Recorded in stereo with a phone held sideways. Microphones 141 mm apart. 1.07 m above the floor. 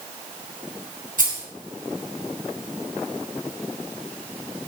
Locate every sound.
1.2 s keys jangling: 70° right (ahead or behind), 3.5 m